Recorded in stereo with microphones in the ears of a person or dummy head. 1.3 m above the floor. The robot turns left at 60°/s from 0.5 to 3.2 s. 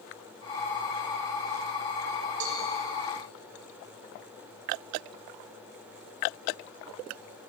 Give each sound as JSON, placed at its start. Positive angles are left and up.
{"t": 2.4, "sound": "a cowbell", "side_deg": -75, "distance_m": 5.5}